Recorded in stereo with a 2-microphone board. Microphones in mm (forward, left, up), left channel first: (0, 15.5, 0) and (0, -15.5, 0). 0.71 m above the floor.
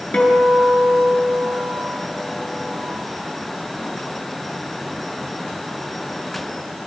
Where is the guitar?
35° left (ahead or behind), 8 m.